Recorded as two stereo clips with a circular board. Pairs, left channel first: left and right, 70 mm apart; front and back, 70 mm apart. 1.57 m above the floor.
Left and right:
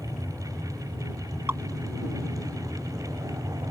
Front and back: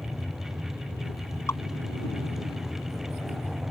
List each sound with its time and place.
1.5 s dripping: 40° right